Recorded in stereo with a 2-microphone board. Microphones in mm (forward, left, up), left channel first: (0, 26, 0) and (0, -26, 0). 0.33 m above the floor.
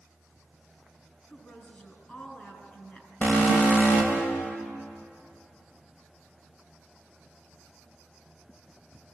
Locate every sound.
1.3 s a woman speaking: 25° left (ahead or behind), 4 m
3.2 s an alarm: 35° left (ahead or behind), 2.5 m